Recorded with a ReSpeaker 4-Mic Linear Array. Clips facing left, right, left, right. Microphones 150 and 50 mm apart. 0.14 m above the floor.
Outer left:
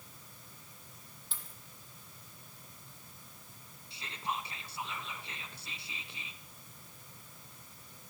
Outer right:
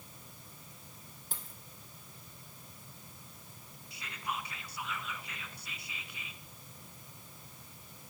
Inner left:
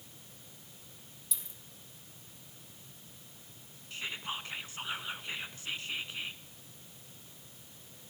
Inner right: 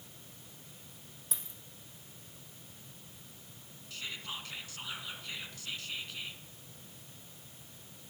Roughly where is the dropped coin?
Right.